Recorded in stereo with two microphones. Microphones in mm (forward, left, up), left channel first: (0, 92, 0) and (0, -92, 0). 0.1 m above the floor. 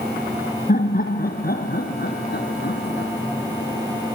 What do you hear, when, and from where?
0.7 s laughter: 55° left (ahead or behind), 1.9 m; by 3.1 s 70° left (ahead or behind), 3.5 m